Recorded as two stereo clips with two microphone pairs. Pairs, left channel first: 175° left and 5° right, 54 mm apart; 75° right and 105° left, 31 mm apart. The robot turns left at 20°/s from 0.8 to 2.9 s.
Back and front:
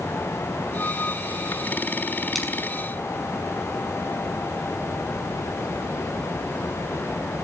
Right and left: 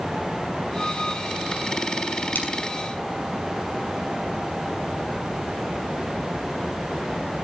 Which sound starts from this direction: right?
A splash, at 2.4 s.